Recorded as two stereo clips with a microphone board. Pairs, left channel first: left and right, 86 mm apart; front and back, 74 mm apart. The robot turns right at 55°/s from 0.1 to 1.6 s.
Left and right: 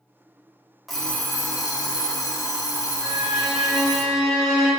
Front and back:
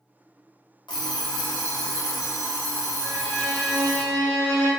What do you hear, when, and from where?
0.9 s an alarm clock: straight ahead, 0.9 m; by 4.0 s 40° left, 0.9 m
3.0 s a violin: straight behind, 1.4 m